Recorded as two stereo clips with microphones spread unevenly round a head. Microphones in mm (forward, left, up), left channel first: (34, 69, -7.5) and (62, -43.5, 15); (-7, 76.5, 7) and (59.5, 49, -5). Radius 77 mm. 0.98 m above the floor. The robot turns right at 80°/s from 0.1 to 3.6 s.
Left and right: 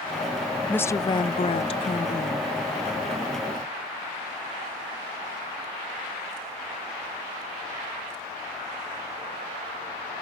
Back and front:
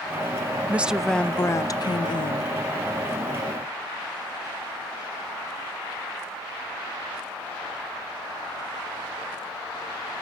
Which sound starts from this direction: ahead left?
A woman speaking, at 0.7 s.